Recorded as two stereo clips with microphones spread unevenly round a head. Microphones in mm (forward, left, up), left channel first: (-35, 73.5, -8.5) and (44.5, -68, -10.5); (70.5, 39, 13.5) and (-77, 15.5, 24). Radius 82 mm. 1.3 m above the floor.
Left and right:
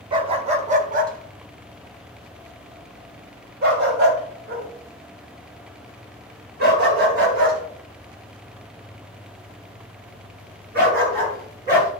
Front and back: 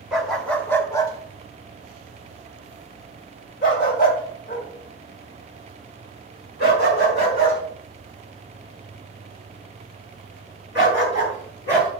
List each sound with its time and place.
0.1 s a dog barking: 95° right, 0.9 m; by 11.9 s 25° right, 6.5 m